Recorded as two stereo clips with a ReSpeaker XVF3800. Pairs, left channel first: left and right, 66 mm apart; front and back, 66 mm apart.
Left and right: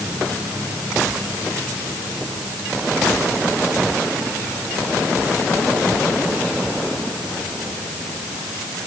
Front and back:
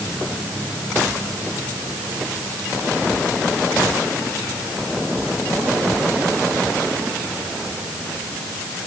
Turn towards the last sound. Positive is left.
No sound to turn to.